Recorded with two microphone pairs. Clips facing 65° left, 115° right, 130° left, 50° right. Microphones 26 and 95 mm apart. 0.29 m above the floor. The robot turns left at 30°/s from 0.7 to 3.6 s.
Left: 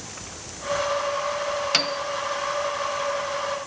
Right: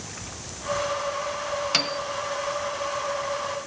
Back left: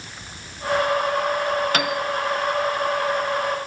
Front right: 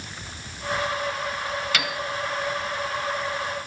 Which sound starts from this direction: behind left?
A piano, at 1.7 s.